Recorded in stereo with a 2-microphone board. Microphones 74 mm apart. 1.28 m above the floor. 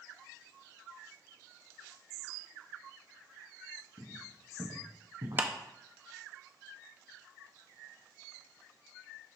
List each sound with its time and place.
4.0 s footsteps: 70° right (ahead or behind), 3.5 m; by 5.5 s 60° right (ahead or behind), 2.5 m
5.4 s a clap: 25° right (ahead or behind), 0.6 m